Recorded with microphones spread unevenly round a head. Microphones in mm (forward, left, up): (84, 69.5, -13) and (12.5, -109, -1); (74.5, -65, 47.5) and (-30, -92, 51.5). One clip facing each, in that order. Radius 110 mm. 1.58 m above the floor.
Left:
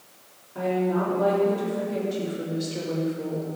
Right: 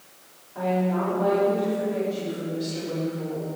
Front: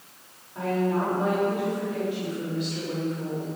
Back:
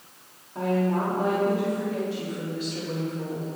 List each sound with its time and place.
0.6 s a woman speaking: 130° left, 4.5 m; by 3.5 s 125° left, 2.5 m